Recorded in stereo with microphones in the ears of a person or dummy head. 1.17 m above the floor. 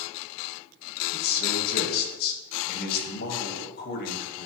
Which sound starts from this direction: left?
A man speaking, at 1.1 s.